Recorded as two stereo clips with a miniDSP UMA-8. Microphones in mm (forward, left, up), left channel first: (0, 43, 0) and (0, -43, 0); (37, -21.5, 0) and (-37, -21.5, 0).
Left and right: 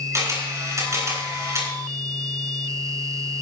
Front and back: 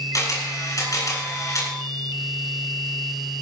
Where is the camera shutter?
40° right, 6.5 m.